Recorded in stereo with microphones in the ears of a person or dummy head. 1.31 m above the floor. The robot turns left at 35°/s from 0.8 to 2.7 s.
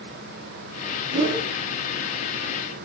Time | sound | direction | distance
1.1 | a whoosh | 30° right (ahead or behind) | 1.5 m